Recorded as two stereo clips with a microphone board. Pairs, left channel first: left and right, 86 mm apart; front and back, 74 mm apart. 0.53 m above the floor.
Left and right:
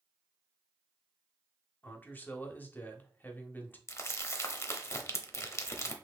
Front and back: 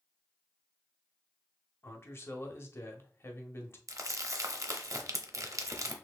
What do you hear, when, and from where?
1.8 s a man speaking: 30° left, 0.9 m
3.9 s crumpling: 145° left, 0.7 m